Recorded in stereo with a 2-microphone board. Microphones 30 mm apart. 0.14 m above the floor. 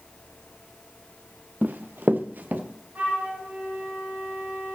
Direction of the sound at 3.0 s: 60° right (ahead or behind).